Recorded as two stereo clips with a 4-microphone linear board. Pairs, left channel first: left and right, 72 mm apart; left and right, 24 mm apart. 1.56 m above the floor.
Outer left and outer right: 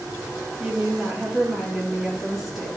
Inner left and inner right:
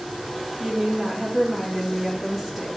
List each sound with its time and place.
0.6 s a woman speaking: 5° right (ahead or behind), 2.5 m